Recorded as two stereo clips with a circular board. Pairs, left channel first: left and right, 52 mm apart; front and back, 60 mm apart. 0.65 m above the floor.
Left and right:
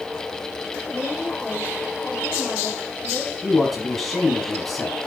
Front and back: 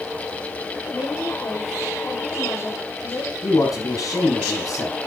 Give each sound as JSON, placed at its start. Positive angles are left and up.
{"t": 0.9, "sound": "a woman speaking", "azimuth_deg": -25, "distance_m": 3.5}
{"t": 3.4, "sound": "a man speaking", "azimuth_deg": 5, "distance_m": 5.0}